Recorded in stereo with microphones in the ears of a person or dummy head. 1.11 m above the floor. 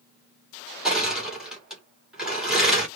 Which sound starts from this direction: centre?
Crushing, at 0.8 s.